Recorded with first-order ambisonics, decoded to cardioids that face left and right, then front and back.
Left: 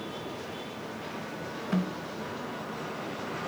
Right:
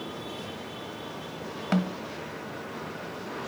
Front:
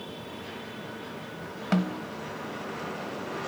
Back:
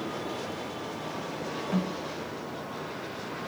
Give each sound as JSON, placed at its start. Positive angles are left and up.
{"t": 1.7, "sound": "a snare drum", "azimuth_deg": -45, "distance_m": 1.2}